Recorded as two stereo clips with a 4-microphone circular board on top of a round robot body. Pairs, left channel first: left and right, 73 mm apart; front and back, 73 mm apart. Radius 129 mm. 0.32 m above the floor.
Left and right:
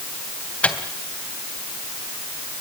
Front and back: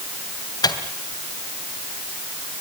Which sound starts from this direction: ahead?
A microwave, at 0.6 s.